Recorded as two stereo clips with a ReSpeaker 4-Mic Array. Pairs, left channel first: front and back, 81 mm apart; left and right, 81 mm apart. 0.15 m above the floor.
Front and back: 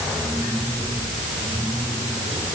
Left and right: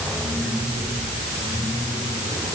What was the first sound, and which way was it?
Only background noise.